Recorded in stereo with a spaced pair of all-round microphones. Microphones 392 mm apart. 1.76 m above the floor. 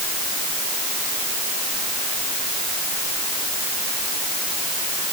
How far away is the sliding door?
I don't hear a sliding door.